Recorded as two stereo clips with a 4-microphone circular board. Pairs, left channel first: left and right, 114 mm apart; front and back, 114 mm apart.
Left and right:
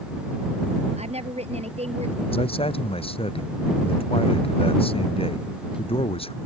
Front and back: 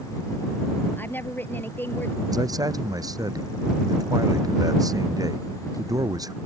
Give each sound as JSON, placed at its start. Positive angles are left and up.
{"t": 1.0, "sound": "a woman speaking", "azimuth_deg": -70}
{"t": 2.3, "sound": "a man speaking", "azimuth_deg": 125}